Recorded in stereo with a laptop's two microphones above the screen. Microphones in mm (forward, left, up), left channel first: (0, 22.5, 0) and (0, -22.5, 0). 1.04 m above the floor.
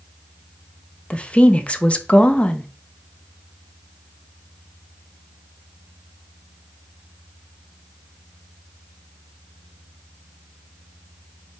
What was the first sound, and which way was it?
A woman speaking, 30° left (ahead or behind).